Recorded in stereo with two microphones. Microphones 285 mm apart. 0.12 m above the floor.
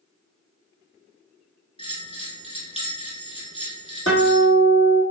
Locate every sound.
1.8 s a bell: 20° left (ahead or behind), 0.9 m
4.1 s a guitar: 45° left (ahead or behind), 1.4 m